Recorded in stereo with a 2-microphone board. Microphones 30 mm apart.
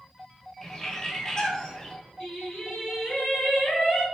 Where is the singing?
35° left (ahead or behind), 1.1 m.